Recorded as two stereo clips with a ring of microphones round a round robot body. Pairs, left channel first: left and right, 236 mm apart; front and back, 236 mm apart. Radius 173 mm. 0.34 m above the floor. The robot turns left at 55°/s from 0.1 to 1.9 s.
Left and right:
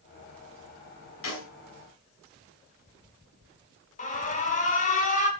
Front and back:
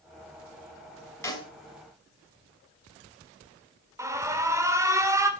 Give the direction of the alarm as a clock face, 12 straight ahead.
8 o'clock.